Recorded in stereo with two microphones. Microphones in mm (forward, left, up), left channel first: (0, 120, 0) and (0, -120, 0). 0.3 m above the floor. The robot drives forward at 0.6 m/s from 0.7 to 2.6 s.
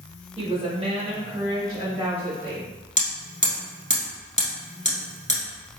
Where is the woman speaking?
25° right (ahead or behind), 0.9 m; by 2.7 s 15° right (ahead or behind), 1.5 m.